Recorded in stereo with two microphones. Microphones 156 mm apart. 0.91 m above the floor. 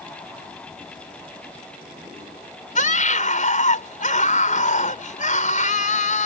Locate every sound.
2.8 s a scream: 50° left (ahead or behind)